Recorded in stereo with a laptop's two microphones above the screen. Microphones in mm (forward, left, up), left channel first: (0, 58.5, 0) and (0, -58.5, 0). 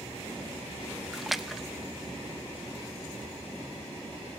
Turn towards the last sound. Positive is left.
turn(degrees=0)  # may be behind; listen again after turning